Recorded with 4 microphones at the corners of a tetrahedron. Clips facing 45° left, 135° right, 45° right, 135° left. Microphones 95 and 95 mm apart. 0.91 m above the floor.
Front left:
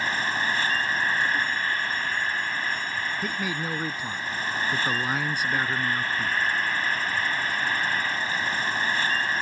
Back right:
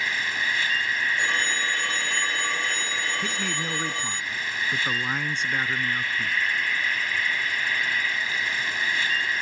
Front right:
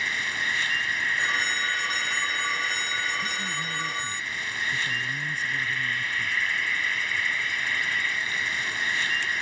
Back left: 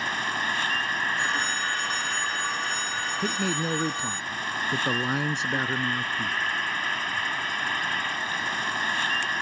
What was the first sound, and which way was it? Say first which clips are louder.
An insect: front left 2 dB, back left 2 dB; 95° left.